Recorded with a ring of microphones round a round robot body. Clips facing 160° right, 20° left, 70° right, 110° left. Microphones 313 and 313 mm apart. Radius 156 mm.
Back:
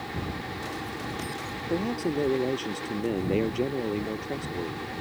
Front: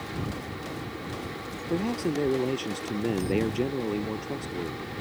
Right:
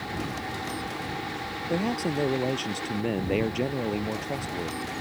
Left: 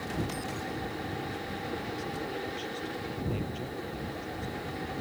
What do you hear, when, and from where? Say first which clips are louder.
1.7 s a man speaking: even, right 13 dB; 60° right